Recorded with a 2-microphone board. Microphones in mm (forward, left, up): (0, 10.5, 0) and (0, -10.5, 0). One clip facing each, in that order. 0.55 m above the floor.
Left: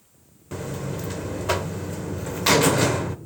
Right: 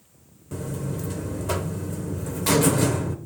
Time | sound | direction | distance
0.5 | a buzzer | 35° left (ahead or behind) | 0.8 m